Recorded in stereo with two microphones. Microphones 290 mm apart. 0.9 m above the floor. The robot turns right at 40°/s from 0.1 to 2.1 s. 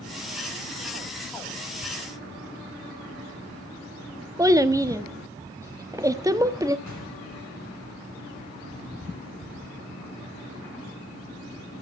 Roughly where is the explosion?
Left.